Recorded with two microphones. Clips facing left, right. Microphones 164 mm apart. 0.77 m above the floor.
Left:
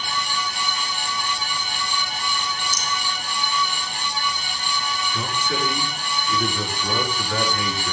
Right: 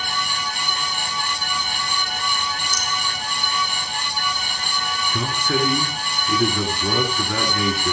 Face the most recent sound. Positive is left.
turn(degrees=-60)  # may be behind; listen again after turning